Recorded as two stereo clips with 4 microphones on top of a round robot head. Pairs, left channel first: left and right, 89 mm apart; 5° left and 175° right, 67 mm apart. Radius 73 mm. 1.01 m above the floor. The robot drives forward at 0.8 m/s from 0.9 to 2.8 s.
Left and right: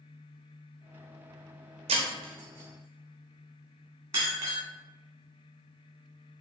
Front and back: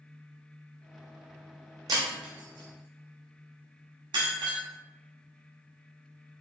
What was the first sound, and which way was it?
Breaking glass, 120° right.